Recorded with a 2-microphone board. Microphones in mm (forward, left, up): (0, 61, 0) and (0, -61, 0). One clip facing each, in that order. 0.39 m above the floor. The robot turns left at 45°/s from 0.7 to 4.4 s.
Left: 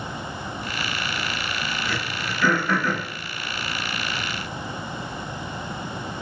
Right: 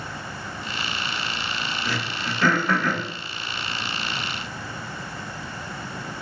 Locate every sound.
1.9 s throat clearing: 80° right, 1.2 m; by 3.1 s 45° right (ahead or behind), 1.2 m